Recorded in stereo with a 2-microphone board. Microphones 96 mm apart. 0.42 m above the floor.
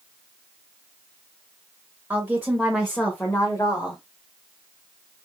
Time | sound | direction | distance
2.1 | a woman speaking | 20° right (ahead or behind) | 1.4 m